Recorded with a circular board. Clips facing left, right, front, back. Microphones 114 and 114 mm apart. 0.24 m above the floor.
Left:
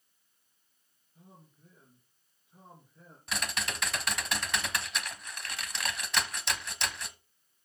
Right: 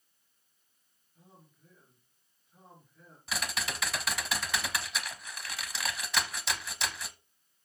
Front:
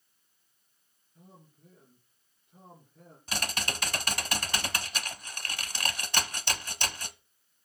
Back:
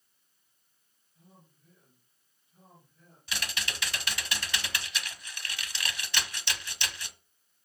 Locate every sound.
1.1 s a man speaking: 25° left, 3.5 m
3.3 s typing on a keyboard: 5° right, 0.8 m